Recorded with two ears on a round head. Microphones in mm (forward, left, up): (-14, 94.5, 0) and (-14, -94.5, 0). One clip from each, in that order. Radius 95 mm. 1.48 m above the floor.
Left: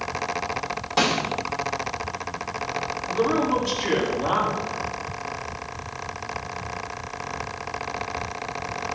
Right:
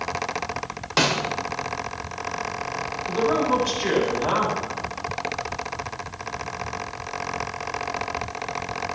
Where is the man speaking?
45° right (ahead or behind), 9.5 m.